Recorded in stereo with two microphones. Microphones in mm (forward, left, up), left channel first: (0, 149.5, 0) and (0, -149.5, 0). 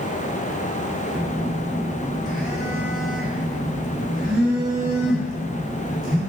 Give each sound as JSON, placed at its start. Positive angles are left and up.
{"t": 1.1, "sound": "a phone buzzing", "side_deg": 0, "distance_m": 0.7}